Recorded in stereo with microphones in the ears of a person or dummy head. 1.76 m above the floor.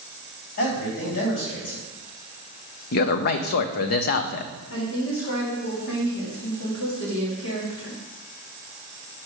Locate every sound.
0.6 s a man speaking: 65° left (ahead or behind), 3.5 m
2.9 s a man speaking: 55° left (ahead or behind), 0.6 m
4.7 s a woman speaking: 70° left (ahead or behind), 2.5 m